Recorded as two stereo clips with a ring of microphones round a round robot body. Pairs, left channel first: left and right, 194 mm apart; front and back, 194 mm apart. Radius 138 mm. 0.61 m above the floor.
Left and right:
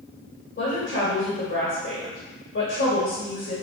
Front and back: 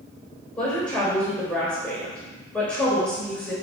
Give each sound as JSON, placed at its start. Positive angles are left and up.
{"t": 0.6, "sound": "a woman speaking", "azimuth_deg": 85, "distance_m": 3.5}